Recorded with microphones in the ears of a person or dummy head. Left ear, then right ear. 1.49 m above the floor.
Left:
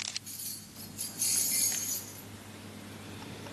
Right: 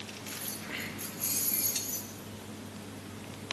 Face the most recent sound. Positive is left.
turn(degrees=45)  # may be behind; listen again after turning